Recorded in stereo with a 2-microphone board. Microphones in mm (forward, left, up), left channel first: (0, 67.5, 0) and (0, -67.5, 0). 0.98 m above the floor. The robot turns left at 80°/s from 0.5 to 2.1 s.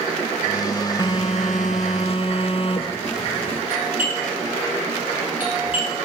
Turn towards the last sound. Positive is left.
turn(degrees=-15)  # may be behind; listen again after turning